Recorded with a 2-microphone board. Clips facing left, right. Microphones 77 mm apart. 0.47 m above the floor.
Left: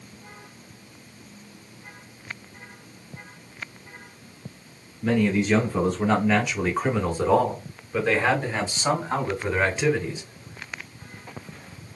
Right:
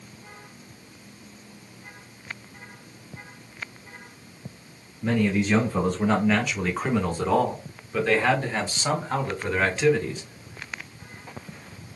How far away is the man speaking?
About 1.5 m.